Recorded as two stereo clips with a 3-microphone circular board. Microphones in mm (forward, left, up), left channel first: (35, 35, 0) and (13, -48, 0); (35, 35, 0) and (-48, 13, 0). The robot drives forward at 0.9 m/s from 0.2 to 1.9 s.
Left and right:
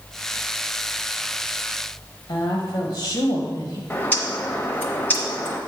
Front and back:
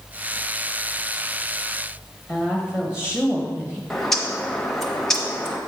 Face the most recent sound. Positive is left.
turn(degrees=90)